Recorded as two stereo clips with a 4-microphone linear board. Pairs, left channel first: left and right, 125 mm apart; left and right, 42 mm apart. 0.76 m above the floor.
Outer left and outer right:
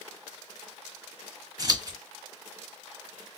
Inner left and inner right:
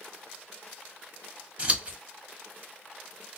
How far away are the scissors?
About 1.3 m.